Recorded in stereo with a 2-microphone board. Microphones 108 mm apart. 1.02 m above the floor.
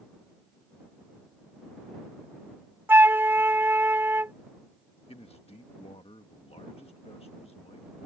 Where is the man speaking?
75° left (ahead or behind).